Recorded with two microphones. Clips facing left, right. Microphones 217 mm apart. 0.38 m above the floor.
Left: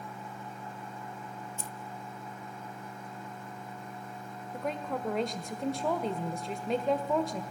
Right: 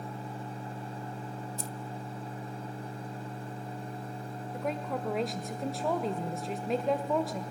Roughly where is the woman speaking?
Centre.